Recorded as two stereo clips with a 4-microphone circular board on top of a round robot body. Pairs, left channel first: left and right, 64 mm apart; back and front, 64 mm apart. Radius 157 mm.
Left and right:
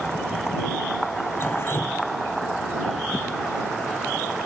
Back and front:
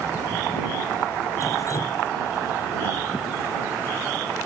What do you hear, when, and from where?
1.4 s dripping: 140° left